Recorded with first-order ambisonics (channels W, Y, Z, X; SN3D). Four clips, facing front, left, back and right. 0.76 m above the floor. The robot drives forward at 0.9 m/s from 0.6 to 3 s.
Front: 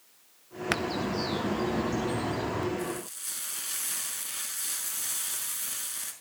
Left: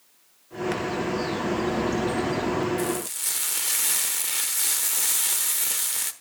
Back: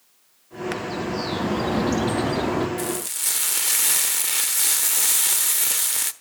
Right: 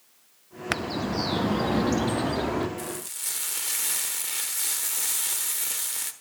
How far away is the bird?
About 0.9 m.